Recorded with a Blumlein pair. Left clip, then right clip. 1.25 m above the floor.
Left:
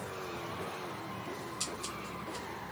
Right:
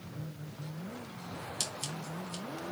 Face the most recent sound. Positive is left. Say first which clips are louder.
# right 3 dB
turn(degrees=-50)